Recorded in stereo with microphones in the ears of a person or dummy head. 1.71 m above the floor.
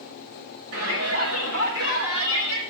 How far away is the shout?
About 4 m.